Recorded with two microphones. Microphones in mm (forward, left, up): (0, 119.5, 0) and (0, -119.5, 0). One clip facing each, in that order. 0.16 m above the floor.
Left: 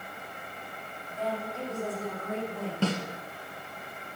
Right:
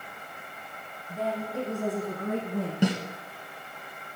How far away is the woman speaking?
About 5.5 m.